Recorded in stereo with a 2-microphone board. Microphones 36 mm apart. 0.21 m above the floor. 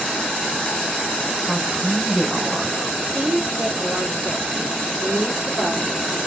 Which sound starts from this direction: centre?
A woman speaking, at 1.4 s.